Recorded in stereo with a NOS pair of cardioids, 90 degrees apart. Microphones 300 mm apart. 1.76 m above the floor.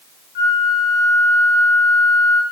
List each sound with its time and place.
0.3 s a flute: 35° left, 0.7 m